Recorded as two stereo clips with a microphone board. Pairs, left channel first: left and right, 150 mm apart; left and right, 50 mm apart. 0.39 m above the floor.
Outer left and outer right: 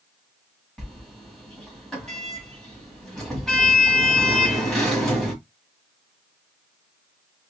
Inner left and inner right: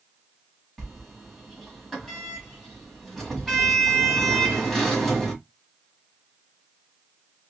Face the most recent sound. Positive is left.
turn(degrees=5)  # may be behind; listen again after turning